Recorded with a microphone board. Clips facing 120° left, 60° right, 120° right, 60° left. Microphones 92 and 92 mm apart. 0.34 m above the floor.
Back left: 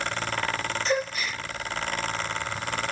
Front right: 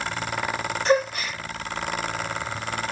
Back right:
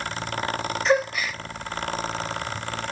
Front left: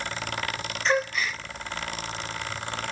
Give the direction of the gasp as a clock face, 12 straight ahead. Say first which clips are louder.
Front right 7 dB, back right 3 dB; 1 o'clock.